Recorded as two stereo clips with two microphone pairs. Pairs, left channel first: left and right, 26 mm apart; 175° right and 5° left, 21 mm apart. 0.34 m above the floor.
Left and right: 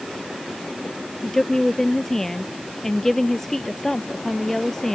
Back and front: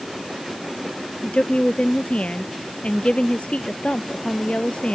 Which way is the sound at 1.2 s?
170° left.